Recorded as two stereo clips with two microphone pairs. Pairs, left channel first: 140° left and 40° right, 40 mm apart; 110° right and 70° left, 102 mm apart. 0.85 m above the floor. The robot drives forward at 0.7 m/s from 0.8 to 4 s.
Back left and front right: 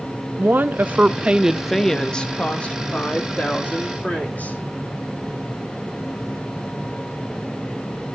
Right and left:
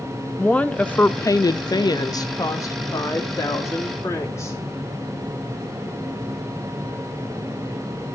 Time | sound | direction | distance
0.4 | a woman speaking | 30° right | 0.6 m